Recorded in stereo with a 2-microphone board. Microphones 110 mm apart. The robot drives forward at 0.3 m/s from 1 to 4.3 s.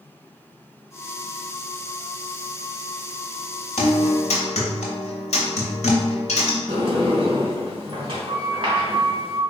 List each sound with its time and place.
3.8 s a guitar: 85° left, 0.7 m
6.7 s a sliding door: 55° right (ahead or behind), 0.9 m